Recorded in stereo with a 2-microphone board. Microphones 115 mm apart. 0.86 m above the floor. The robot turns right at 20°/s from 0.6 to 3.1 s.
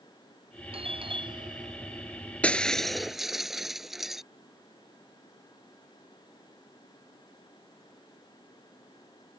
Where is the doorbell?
55° right (ahead or behind); by 2.2 s 25° right (ahead or behind).